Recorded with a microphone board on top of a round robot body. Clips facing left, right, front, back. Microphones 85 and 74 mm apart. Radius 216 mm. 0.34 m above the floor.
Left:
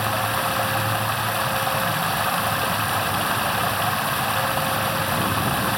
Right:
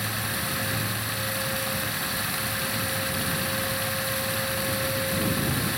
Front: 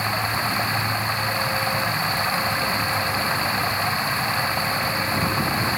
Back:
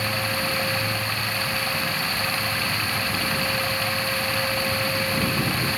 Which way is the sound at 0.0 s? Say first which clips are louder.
Left 9 dB, front 2 dB; 65° left.